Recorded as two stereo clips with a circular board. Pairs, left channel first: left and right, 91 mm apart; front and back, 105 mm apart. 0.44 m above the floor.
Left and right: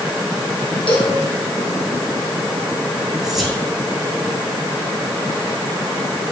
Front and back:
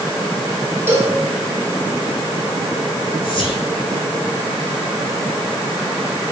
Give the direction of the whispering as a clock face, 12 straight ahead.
12 o'clock.